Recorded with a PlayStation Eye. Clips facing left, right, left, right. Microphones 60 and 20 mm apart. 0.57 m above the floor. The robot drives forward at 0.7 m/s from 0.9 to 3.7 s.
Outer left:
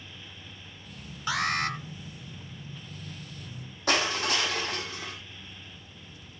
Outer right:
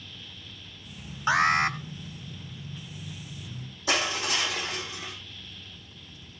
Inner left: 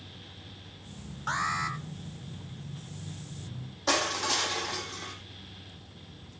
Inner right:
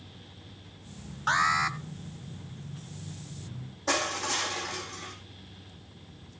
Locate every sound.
1.3 s an alarm: 30° right (ahead or behind), 1.1 m; by 1.8 s 25° right (ahead or behind), 1.4 m
3.9 s crushing: 60° left (ahead or behind), 4.5 m